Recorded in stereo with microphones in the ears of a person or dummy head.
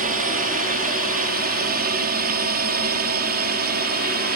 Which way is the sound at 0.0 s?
50° right (ahead or behind).